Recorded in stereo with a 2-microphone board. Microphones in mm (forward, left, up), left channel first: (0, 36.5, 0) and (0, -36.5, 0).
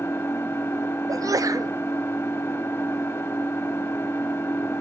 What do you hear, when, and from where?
0.0 s an engine running: 30° left (ahead or behind), 1.3 m
1.1 s a sneeze: 50° right (ahead or behind), 0.6 m